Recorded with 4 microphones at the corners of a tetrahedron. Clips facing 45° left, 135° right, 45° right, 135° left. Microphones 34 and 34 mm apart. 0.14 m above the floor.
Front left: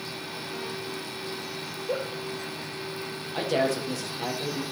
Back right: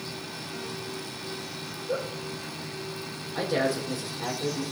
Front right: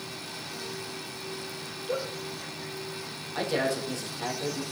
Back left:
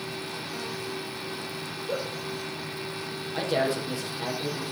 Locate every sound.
1.9 s a giggle: 65° left, 3 m
3.3 s a man speaking: 70° left, 4 m